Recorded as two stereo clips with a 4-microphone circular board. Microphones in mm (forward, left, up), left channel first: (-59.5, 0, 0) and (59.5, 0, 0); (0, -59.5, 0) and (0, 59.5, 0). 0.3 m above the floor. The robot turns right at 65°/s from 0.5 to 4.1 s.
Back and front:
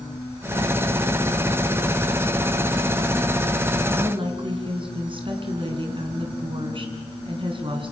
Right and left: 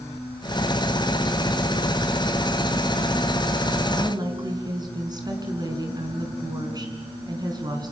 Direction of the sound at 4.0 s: 30° left.